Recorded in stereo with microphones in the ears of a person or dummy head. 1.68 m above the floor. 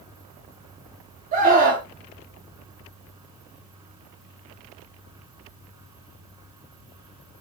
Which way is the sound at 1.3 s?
45° right (ahead or behind).